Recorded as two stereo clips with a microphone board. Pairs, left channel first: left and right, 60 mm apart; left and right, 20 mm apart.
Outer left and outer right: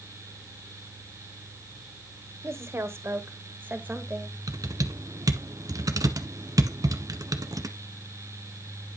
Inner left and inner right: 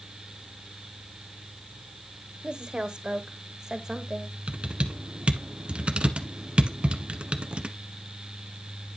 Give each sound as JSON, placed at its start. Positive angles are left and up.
{"t": 2.4, "sound": "a woman speaking", "side_deg": -50, "distance_m": 1.4}
{"t": 4.5, "sound": "typing on a keyboard", "side_deg": -80, "distance_m": 1.2}